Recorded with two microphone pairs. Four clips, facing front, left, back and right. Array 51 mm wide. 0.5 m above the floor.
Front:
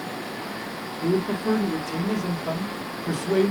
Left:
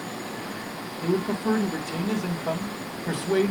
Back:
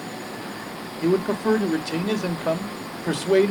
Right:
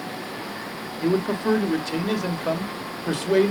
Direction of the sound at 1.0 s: 145° right.